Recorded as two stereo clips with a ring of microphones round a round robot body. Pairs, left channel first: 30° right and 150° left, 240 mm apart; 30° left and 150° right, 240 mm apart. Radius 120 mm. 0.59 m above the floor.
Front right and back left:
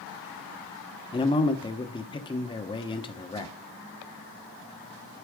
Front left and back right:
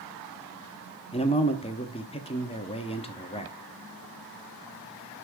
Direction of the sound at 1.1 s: 10° left.